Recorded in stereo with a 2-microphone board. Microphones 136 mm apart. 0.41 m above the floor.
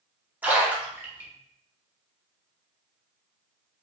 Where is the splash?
15° right (ahead or behind), 0.7 m.